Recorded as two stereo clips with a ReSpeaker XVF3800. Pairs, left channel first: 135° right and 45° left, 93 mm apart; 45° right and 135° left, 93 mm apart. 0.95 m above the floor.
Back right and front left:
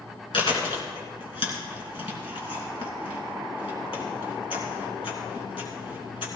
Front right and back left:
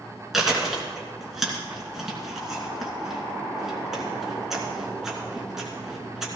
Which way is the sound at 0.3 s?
140° right.